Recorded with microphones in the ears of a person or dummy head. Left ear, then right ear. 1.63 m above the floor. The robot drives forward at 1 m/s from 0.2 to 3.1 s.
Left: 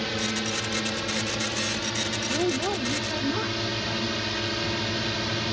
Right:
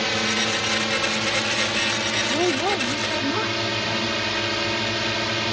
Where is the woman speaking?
30° right (ahead or behind); by 4.1 s 20° right (ahead or behind).